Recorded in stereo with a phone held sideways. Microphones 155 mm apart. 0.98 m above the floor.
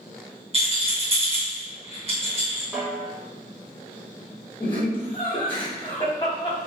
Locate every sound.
0.5 s a rattle: 40° right (ahead or behind), 1.0 m
2.7 s a snare drum: 5° right (ahead or behind), 0.7 m
4.6 s laughter: 30° left (ahead or behind), 1.0 m